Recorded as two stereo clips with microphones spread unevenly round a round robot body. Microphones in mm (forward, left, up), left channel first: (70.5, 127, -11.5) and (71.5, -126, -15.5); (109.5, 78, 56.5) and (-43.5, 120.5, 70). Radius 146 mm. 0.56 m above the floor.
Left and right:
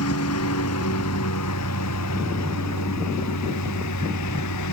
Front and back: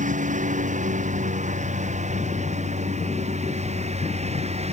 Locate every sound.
0.0 s a lawn mower: 130° left; by 4.7 s 120° left